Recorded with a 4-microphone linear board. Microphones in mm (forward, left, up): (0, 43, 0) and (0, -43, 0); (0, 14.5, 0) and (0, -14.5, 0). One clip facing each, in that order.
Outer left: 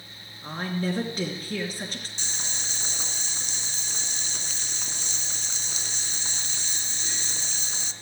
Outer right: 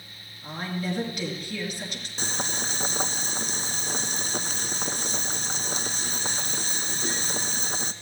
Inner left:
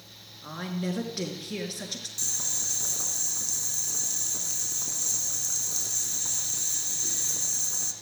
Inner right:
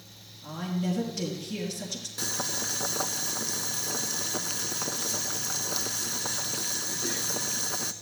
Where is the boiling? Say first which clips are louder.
Outer right 7 dB, inner right 1 dB; 50° right (ahead or behind), 0.7 m.